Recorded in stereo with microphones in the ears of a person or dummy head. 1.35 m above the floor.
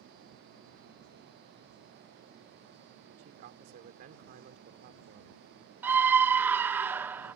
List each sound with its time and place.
3.2 s a man speaking: 55° right (ahead or behind)
5.8 s a scream: 10° right (ahead or behind)